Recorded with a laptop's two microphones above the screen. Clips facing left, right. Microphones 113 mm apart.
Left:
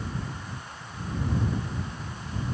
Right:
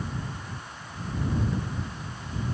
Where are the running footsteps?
I don't hear running footsteps.